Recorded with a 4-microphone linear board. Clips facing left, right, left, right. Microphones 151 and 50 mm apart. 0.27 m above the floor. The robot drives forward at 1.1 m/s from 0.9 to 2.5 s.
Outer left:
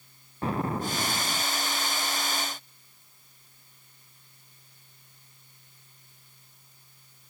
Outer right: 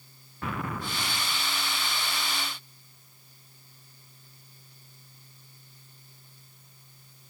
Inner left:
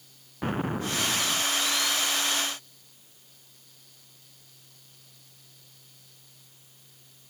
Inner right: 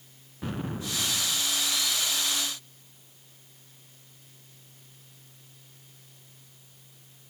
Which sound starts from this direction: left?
An explosion, at 0.4 s.